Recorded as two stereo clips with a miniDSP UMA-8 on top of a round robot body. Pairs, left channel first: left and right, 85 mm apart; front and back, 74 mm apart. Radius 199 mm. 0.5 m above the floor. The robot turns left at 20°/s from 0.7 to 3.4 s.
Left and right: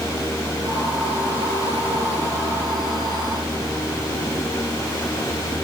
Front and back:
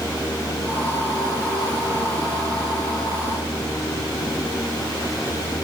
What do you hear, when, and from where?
Only background noise.